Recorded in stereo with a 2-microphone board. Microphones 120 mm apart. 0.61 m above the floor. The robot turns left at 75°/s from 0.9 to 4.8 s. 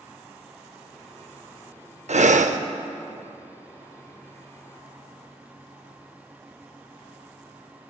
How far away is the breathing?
About 0.5 m.